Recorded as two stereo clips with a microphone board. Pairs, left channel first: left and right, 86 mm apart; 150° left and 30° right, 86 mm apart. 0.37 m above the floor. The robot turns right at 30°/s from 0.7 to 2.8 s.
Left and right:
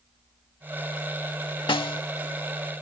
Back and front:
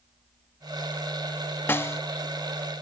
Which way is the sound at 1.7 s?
85° left.